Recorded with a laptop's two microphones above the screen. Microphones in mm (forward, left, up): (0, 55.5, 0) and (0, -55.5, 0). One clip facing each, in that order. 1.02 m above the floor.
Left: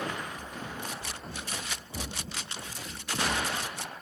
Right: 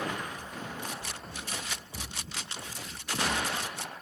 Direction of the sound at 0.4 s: 70° left (ahead or behind).